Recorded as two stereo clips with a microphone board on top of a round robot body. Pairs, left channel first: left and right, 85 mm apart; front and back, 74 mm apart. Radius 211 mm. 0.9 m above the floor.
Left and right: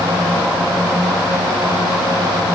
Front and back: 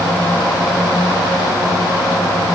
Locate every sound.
Only background noise.